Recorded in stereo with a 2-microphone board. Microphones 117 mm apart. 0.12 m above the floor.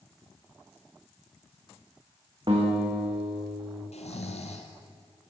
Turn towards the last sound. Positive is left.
turn(degrees=70)  # may be behind; listen again after turning